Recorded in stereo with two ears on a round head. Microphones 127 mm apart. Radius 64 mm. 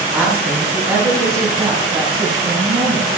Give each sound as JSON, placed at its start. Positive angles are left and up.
{"t": 0.1, "sound": "a woman speaking", "side_deg": -5, "distance_m": 3.0}